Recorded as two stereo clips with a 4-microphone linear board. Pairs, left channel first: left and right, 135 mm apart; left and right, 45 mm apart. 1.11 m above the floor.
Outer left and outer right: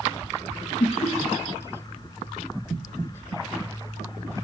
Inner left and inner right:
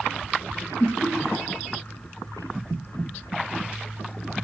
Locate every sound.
0.8 s laughter: 55° left (ahead or behind), 1.0 m